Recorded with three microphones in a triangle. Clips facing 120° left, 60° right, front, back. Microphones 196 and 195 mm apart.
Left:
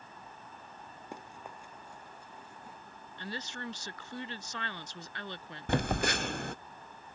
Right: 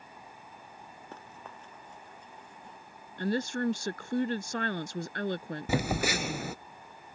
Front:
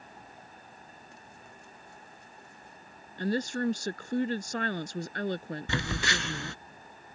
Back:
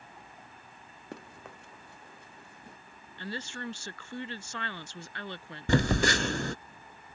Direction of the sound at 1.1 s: 165° right.